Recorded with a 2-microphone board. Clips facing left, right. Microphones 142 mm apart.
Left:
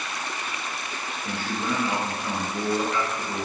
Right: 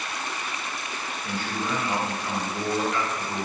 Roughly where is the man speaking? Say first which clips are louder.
Left 1 dB; left.